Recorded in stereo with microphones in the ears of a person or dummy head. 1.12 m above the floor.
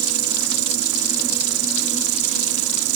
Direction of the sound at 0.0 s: 65° right (ahead or behind).